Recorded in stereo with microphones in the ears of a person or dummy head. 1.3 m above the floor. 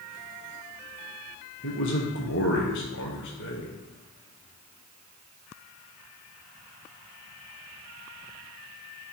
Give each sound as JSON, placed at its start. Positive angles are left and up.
{"t": 1.6, "sound": "a man speaking", "side_deg": 60, "distance_m": 0.6}